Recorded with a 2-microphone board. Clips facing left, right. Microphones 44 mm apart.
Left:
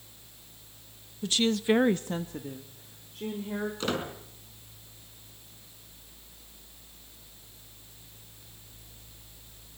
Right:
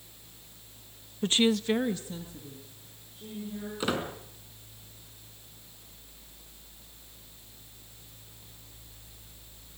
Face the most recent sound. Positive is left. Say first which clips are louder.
# right 4 dB
turn(degrees=-10)  # may be behind; listen again after turning